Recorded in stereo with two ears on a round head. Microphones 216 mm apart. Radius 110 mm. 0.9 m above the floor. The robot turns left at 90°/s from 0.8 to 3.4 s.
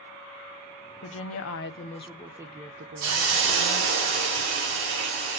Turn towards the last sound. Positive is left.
turn(degrees=-125)